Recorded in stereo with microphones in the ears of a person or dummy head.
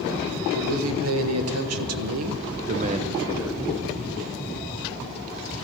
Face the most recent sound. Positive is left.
turn(degrees=0)  # may be behind; listen again after turning